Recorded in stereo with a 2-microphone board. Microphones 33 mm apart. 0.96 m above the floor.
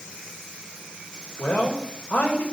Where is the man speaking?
80° left, 4 m.